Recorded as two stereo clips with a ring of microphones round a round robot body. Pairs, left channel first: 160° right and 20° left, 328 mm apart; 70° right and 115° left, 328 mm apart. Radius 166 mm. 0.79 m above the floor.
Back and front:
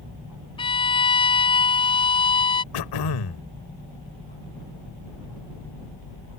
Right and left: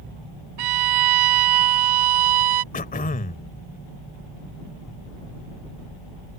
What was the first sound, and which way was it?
A violin, 125° left.